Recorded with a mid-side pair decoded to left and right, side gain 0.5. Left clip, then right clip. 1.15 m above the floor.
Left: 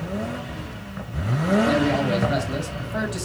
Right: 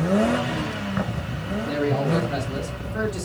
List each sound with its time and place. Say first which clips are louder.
1.6 s a man speaking: left 3 dB; 60° left, 1.8 m